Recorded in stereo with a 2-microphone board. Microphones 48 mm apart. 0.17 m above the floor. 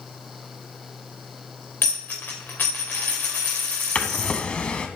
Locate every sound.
1.8 s a dropped coin: 40° left (ahead or behind), 2.5 m
4.0 s a drawer: 25° left (ahead or behind), 0.5 m